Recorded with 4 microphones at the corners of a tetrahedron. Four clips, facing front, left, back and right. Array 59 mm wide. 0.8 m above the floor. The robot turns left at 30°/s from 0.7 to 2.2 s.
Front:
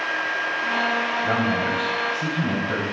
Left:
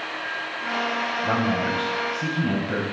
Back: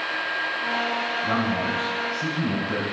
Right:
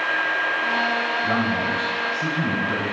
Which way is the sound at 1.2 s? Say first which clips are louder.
Right 1 dB, front 2 dB; 60° left.